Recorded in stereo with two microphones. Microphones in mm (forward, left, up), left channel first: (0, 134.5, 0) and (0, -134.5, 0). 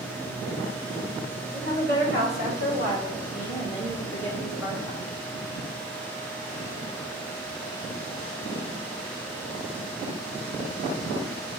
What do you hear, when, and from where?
1.5 s a woman speaking: 35° right (ahead or behind), 1.4 m; by 5.1 s 25° right (ahead or behind), 3 m